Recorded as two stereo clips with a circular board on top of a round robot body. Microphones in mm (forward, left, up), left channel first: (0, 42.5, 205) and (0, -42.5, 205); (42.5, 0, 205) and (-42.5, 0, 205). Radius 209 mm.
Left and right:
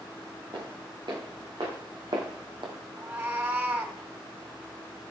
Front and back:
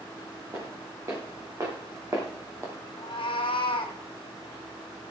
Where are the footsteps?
125° right, 5.5 m; by 2.7 s 120° right, 1.9 m.